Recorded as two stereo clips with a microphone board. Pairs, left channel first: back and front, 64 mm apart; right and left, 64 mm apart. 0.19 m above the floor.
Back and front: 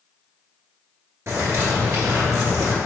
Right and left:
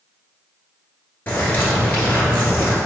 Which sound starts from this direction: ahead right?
A bird, at 1.3 s.